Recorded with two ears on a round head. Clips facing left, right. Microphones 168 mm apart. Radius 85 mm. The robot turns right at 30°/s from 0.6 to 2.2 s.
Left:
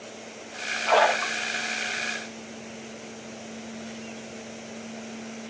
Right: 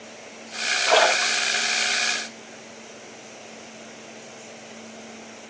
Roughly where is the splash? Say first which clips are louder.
Right 1 dB; right.